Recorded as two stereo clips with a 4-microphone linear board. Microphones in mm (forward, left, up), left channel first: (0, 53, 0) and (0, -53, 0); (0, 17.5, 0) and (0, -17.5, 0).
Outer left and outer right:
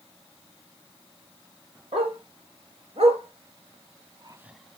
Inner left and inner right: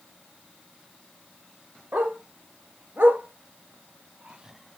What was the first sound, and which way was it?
A dog barking, 65° right (ahead or behind).